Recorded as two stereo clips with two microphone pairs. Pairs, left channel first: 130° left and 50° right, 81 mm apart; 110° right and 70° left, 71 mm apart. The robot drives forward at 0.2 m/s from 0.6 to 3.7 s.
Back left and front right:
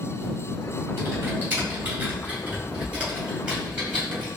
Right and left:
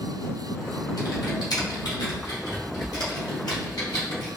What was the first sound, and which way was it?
Typing on a keyboard, 110° right.